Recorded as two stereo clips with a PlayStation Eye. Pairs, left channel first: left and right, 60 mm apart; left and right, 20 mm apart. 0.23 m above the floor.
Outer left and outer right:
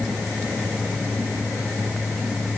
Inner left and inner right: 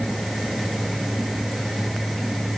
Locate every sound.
Only background noise.